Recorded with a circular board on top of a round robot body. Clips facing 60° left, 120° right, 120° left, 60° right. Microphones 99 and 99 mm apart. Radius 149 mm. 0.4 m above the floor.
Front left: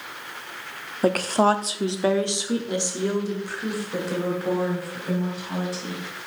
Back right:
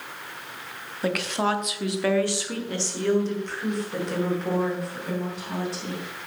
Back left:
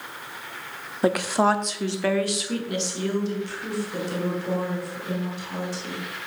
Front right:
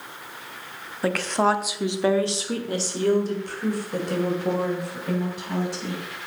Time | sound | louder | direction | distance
1.0 | a woman speaking | front left 6 dB, back left 1 dB | 65° left | 1.0 m